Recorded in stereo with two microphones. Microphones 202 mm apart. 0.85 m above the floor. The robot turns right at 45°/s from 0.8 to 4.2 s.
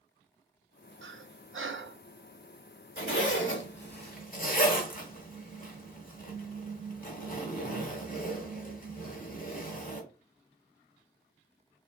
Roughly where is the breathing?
Right.